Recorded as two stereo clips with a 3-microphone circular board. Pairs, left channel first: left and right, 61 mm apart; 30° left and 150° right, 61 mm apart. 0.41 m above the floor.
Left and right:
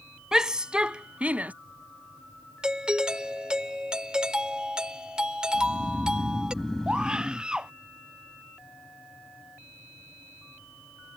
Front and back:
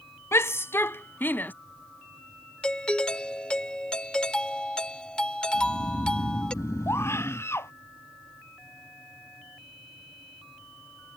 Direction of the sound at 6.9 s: 15° right.